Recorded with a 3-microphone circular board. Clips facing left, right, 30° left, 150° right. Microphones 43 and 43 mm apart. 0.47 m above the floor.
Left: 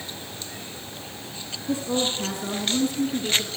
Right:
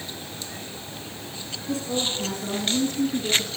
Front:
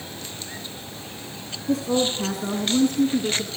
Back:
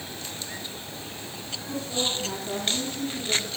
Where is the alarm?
No alarm in this recording.